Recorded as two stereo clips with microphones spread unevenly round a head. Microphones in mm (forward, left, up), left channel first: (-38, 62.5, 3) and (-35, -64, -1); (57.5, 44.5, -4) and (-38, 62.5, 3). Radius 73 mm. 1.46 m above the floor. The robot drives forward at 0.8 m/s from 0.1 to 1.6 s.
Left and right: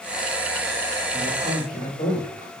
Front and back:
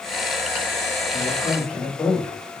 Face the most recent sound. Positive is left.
turn(degrees=70)